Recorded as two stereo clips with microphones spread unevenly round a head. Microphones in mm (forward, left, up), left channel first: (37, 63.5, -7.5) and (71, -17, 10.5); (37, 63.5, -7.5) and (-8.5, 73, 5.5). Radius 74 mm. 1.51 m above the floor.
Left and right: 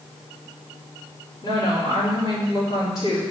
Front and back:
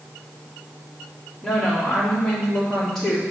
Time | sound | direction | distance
1.4 | a woman speaking | 70° left | 3.5 m